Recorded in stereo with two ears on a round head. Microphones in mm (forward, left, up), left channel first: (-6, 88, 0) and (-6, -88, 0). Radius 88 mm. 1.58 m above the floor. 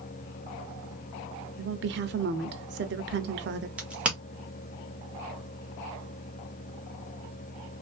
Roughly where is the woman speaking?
Right.